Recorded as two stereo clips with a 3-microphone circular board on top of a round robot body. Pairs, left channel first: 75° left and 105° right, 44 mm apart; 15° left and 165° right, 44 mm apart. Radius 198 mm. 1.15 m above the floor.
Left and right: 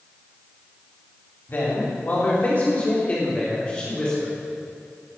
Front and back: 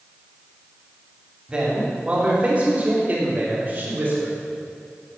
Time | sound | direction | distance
1.5 | a man speaking | 125° left | 3 m